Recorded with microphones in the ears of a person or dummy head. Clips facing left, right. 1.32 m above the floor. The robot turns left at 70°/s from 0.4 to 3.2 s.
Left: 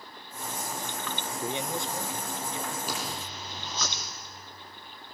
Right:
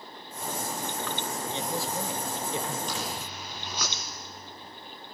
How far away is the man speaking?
About 1.3 m.